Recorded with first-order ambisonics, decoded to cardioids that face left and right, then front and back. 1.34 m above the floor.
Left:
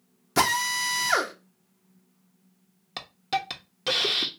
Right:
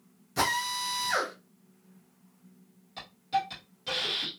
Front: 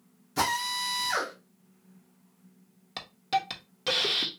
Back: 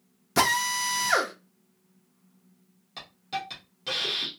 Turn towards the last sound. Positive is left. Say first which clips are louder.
# left 1 dB, front 5 dB
turn(degrees=55)